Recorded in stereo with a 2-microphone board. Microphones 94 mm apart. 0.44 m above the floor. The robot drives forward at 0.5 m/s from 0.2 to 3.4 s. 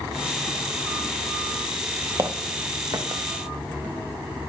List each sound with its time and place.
2.2 s footsteps: 35° right (ahead or behind), 0.6 m; by 3.2 s 50° right (ahead or behind), 1.2 m